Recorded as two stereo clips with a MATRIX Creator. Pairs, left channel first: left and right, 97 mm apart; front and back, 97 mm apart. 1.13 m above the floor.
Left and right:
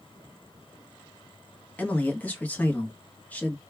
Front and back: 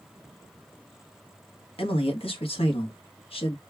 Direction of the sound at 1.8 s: 15° left.